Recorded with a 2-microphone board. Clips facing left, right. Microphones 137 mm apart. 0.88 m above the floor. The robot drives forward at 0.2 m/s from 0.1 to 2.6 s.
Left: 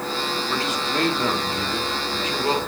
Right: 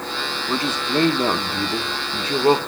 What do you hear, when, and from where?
0.5 s a man speaking: 30° right (ahead or behind), 0.8 m